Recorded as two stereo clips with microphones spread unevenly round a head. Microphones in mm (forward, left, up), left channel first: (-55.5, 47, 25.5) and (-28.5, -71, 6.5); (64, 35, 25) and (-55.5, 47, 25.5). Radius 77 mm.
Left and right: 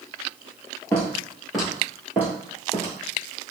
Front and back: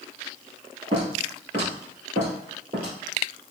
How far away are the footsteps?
About 1.8 m.